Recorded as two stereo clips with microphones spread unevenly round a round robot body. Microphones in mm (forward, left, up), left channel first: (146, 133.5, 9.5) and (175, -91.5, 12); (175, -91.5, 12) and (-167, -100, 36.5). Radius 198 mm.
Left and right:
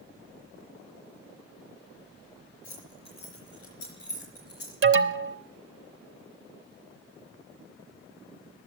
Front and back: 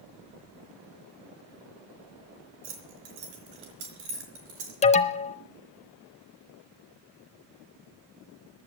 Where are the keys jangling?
170° left, 4 m; by 4.8 s 175° right, 4 m.